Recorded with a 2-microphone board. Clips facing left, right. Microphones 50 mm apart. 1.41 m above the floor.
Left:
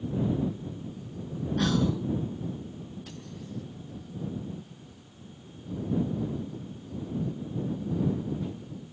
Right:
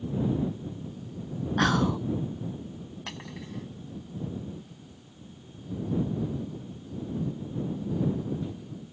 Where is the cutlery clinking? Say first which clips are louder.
Right 2 dB; 80° right.